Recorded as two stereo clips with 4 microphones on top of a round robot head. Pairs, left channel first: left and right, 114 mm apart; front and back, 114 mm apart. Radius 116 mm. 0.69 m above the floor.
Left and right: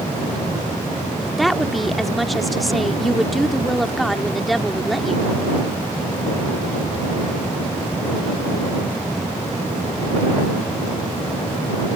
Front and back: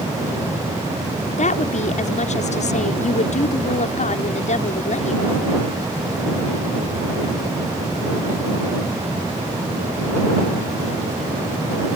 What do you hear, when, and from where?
1.4 s a woman speaking: straight ahead